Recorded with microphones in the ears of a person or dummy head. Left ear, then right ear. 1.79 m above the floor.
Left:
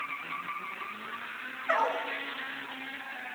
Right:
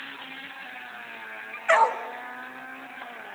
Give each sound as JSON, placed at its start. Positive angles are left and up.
{"t": 1.7, "sound": "a dog barking", "side_deg": -25, "distance_m": 1.5}